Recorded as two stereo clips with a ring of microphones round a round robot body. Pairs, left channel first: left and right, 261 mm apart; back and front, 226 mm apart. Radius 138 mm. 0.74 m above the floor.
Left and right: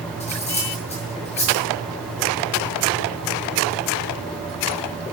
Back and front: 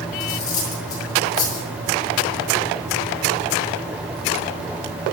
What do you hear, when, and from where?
0.2 s cutlery clinking: 155° left, 8.5 m